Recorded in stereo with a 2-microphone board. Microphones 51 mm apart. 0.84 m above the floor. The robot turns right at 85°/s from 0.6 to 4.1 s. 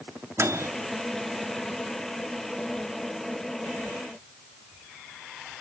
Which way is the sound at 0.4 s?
60° right (ahead or behind).